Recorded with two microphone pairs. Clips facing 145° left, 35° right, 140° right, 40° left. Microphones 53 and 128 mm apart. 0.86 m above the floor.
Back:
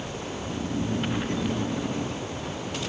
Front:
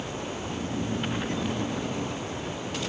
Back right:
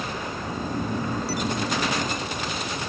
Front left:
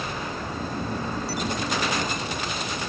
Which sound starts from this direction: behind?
Snoring, at 0.3 s.